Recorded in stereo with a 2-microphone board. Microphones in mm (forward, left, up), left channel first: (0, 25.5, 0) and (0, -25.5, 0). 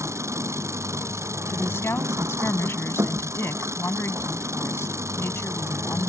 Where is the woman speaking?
55° left (ahead or behind).